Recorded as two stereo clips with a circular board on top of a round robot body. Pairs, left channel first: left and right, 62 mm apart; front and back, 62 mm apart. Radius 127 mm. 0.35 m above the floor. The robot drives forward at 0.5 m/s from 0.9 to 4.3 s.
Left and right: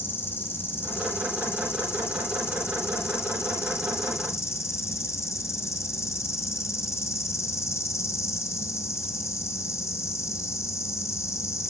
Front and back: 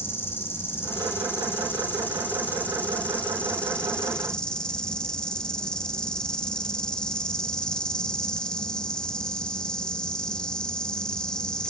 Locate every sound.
0.0 s an insect: 45° left, 4 m; by 11.7 s 75° left, 3.5 m